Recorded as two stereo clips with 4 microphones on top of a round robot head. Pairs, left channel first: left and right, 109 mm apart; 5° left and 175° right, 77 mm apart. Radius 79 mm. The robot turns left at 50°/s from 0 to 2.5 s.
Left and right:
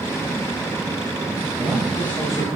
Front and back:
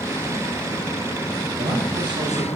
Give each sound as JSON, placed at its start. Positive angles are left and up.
{"t": 1.6, "sound": "a man speaking", "azimuth_deg": -165, "distance_m": 3.5}